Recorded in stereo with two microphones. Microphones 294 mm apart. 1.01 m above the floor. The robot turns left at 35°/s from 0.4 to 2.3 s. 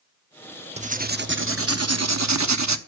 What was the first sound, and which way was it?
Writing, 25° right.